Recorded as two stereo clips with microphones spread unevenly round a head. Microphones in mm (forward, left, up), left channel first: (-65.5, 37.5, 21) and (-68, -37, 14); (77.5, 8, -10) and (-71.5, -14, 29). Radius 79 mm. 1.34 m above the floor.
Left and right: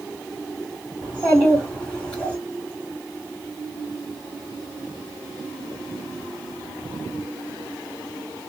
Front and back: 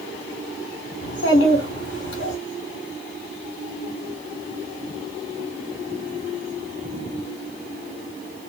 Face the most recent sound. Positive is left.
turn(degrees=15)